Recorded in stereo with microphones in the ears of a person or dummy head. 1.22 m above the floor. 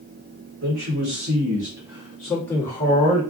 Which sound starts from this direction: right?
A man speaking, at 0.6 s.